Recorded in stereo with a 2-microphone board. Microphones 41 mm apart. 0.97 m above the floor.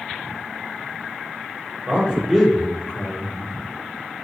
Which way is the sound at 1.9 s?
30° right (ahead or behind).